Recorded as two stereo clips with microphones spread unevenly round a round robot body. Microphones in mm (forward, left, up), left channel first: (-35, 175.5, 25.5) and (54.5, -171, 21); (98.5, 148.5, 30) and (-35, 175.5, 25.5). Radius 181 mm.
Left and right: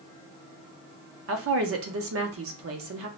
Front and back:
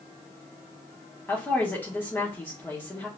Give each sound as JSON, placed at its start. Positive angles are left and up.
{"t": 1.3, "sound": "a woman speaking", "azimuth_deg": -85, "distance_m": 0.7}